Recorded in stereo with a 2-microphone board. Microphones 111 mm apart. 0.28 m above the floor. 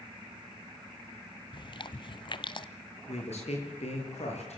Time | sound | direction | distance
1.5 | chewing | 45° left (ahead or behind) | 1.0 m
3.1 | a man speaking | 70° left (ahead or behind) | 7 m